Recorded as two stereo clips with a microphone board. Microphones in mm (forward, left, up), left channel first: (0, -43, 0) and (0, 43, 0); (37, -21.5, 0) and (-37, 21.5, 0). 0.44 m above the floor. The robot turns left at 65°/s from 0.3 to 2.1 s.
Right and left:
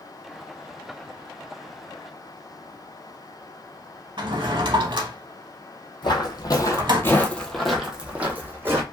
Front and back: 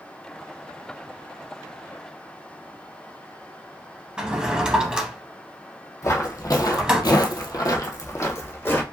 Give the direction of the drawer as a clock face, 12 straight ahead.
10 o'clock.